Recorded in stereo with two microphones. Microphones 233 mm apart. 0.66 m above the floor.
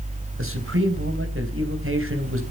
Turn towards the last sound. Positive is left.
turn(degrees=-65)  # may be behind; listen again after turning